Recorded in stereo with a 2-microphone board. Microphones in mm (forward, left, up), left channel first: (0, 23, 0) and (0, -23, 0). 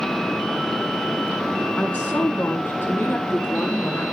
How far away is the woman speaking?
About 5.5 m.